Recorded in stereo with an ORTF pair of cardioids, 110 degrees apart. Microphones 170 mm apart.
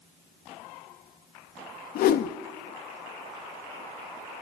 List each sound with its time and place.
1.9 s a whoosh: 60° left, 1.2 m